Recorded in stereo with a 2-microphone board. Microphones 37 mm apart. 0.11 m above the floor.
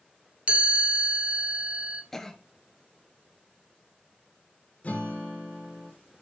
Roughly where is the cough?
Centre.